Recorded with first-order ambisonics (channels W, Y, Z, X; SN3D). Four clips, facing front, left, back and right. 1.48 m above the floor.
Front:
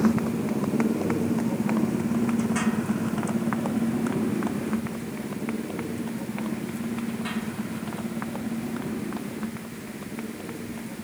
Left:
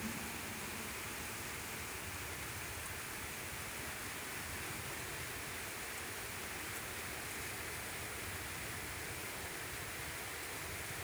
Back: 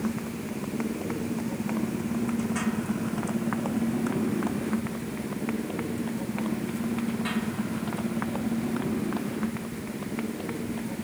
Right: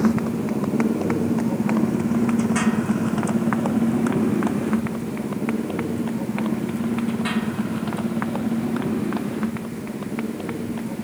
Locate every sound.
0.0 s a motorcycle: 65° right; by 11.1 s 100° right